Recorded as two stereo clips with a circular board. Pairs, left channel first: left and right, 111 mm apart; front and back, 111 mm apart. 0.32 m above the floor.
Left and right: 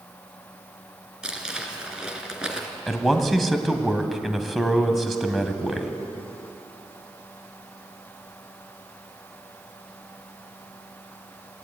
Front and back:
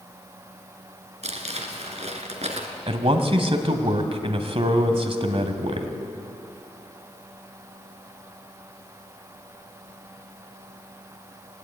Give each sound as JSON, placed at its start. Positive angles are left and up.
{"t": 1.2, "sound": "crumpling", "azimuth_deg": -170, "distance_m": 2.5}
{"t": 2.9, "sound": "a man speaking", "azimuth_deg": 180, "distance_m": 1.9}